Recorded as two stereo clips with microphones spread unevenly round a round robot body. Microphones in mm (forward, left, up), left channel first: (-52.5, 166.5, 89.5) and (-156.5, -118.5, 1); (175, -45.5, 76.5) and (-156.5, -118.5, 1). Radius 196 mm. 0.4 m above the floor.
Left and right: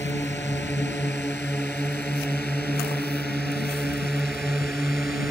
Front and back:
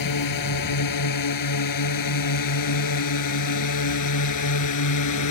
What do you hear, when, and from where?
0.0 s a drone: 15° right; by 5.3 s 25° right